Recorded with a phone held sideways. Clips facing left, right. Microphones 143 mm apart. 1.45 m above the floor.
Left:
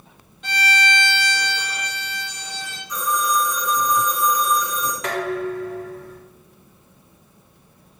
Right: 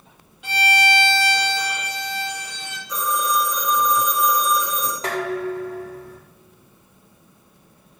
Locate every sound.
0.4 s a violin: 10° right (ahead or behind), 1.6 m
2.9 s a phone ringing: 80° right, 3 m
5.0 s dishes clattering: 30° right (ahead or behind), 2 m